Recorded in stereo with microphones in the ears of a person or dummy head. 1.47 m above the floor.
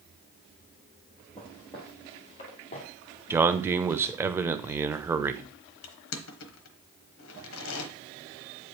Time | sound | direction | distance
1.4 | footsteps | 10° left (ahead or behind) | 2 m
3.3 | a man speaking | 15° right (ahead or behind) | 0.7 m
5.8 | crushing | 80° left | 1.1 m